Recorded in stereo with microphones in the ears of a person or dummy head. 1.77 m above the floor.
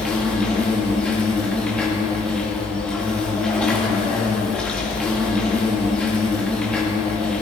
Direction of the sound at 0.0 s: 5° left (ahead or behind).